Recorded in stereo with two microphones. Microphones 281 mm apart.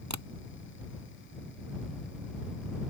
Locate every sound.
0.1 s tapping: 75° right (ahead or behind)